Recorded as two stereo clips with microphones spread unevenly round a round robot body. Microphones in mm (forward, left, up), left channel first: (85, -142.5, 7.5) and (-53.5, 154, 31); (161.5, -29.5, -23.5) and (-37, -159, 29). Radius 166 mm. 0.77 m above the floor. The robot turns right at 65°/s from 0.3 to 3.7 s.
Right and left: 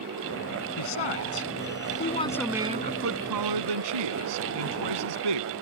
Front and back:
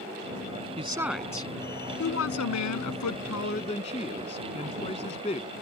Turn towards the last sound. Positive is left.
turn(degrees=105)